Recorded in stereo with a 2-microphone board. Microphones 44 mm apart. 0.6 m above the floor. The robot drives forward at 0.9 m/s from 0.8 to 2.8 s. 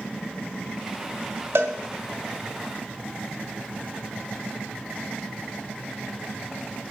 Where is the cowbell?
70° right (ahead or behind), 1.1 m; by 1.7 s 65° right (ahead or behind), 1.1 m.